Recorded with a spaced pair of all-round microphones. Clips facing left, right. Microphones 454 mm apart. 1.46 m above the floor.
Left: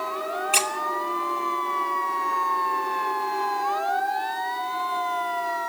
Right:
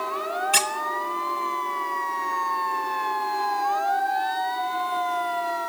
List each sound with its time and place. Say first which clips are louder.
0.5 s a squeak: left 1 dB; 35° right (ahead or behind), 1.1 m